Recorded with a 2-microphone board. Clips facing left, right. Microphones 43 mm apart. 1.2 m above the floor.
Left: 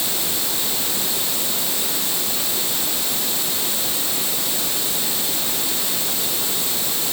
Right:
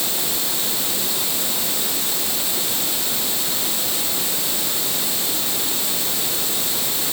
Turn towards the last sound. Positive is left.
No sound to turn to.